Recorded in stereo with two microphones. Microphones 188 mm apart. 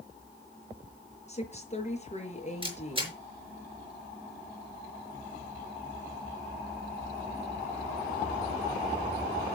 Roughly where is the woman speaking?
Left.